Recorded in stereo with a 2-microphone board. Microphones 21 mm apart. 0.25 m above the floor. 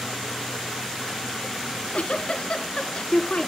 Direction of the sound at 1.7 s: 60° left (ahead or behind).